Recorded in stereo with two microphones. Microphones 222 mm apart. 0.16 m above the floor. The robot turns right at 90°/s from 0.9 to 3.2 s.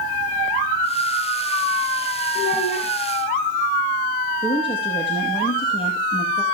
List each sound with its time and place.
2.4 s a child speaking: 10° left, 7.5 m; by 2.9 s 55° left, 7.5 m
4.4 s a woman speaking: 20° left (ahead or behind), 4.5 m